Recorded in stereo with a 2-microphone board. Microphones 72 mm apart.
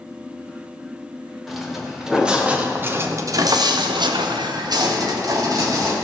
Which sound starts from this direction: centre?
Footsteps, at 1.5 s.